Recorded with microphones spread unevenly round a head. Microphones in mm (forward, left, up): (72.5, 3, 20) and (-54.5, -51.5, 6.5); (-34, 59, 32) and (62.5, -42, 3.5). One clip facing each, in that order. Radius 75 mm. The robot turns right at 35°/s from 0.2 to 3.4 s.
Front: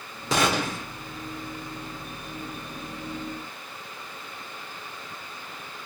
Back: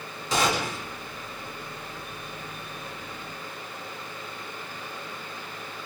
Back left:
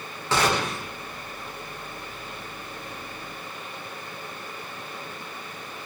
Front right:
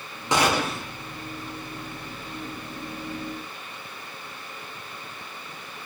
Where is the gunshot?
35° left, 0.8 m; by 0.9 s 55° left, 0.8 m.